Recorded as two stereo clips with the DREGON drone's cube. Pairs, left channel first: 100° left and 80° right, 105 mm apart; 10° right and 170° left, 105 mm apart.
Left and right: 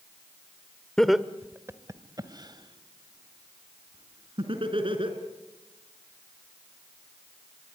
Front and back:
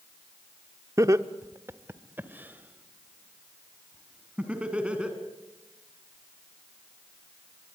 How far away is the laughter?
About 0.9 m.